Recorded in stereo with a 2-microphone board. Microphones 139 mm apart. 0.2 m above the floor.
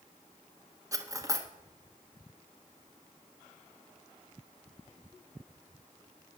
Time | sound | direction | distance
0.9 | cutlery clinking | 25° right (ahead or behind) | 1.3 m